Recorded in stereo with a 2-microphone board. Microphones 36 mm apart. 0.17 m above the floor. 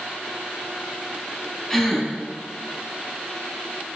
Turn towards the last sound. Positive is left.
turn(degrees=10)  # may be behind; listen again after turning